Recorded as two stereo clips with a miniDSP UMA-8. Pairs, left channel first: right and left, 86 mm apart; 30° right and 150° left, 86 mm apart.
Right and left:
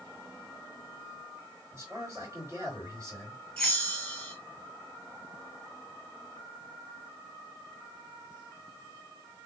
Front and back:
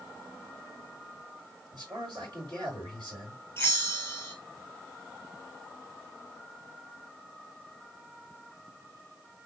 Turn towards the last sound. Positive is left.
turn(degrees=-25)